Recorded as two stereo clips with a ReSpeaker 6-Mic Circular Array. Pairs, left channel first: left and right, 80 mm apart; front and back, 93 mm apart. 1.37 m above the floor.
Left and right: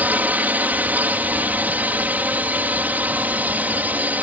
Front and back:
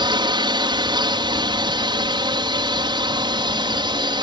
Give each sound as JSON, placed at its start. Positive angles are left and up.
{"t": 0.0, "sound": "a drone", "azimuth_deg": -155}